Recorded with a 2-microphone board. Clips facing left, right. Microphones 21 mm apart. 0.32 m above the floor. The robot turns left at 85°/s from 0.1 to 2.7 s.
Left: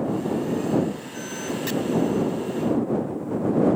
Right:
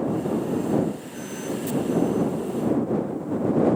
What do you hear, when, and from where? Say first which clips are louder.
1.7 s chopping: left 3 dB; 55° left (ahead or behind)